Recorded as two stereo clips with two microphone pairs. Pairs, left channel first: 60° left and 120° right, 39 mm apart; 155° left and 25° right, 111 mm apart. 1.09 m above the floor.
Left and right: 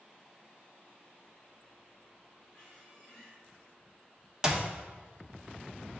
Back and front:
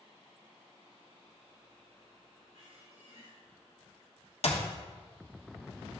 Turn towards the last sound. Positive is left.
turn(degrees=170)